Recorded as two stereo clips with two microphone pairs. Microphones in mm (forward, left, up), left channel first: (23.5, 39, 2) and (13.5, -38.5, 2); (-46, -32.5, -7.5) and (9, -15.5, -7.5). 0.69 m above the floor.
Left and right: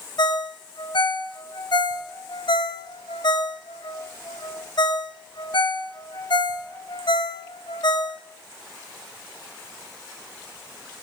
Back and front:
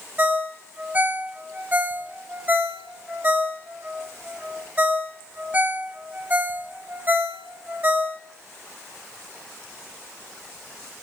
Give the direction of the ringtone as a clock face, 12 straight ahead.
9 o'clock.